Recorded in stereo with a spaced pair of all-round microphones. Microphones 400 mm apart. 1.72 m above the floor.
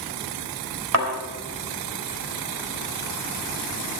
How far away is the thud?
About 4 m.